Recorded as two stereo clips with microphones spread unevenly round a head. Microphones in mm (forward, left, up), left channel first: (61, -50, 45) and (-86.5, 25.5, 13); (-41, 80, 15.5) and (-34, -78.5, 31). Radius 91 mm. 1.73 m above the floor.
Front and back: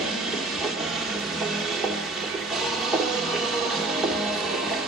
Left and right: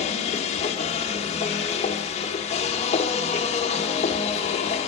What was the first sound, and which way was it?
A machine running, 50° left.